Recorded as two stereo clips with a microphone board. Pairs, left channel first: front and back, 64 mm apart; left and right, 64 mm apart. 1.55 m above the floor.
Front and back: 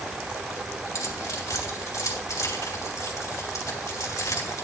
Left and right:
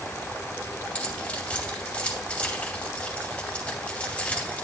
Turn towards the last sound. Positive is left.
turn(degrees=25)